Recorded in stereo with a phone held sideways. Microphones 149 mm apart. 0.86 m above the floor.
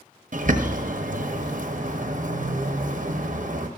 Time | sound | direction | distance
0.3 | a bird | 60° right (ahead or behind) | 0.9 m